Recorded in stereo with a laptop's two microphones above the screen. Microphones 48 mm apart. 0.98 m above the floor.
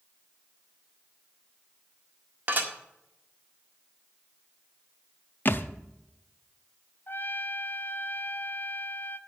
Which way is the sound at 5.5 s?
45° left (ahead or behind).